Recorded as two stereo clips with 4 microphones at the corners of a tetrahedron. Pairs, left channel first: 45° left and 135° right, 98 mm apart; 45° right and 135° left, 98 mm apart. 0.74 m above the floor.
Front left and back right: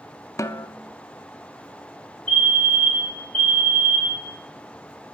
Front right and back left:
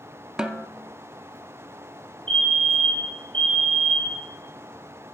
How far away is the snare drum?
About 0.6 m.